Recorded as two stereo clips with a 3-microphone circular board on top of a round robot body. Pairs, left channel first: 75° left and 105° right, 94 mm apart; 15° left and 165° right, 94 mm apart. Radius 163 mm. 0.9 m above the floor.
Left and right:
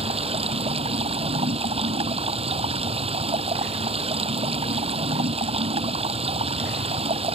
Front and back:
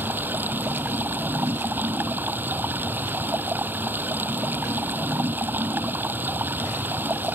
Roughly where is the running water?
Right.